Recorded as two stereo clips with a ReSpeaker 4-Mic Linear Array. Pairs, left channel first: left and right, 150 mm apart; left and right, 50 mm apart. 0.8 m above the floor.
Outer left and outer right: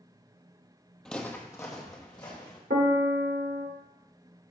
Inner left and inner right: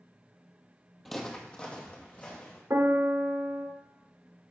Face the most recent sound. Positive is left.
turn(degrees=-85)